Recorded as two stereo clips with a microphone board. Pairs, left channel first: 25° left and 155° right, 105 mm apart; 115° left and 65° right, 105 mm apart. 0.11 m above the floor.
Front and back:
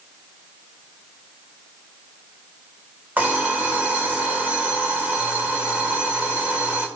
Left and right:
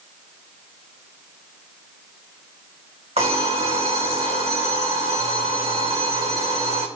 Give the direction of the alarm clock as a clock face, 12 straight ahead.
3 o'clock.